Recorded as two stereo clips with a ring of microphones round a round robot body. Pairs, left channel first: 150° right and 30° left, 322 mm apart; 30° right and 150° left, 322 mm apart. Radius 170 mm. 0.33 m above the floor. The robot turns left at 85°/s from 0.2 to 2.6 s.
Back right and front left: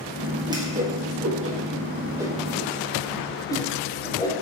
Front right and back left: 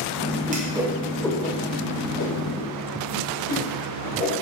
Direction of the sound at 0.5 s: 105° left.